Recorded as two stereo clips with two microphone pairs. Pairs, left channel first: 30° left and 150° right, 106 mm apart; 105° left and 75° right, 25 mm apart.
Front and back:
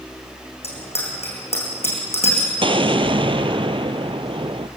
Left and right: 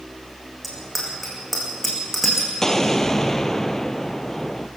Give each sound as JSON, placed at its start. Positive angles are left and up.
{"t": 0.6, "sound": "a bicycle bell", "azimuth_deg": 15, "distance_m": 6.0}
{"t": 2.6, "sound": "an explosion", "azimuth_deg": 180, "distance_m": 0.8}